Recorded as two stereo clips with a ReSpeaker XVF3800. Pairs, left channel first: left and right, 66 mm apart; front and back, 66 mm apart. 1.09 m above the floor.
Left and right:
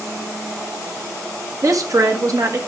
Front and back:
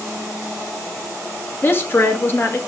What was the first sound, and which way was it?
A woman speaking, 60° right.